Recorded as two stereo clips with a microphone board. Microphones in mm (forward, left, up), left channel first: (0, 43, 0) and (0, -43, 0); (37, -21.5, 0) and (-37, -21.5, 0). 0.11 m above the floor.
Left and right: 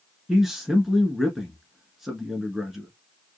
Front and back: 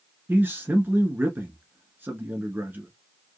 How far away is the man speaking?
About 1.3 m.